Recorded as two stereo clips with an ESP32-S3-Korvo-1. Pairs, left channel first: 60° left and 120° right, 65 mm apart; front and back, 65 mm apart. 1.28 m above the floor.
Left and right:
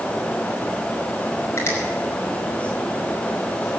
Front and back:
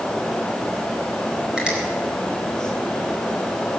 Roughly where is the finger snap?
Left.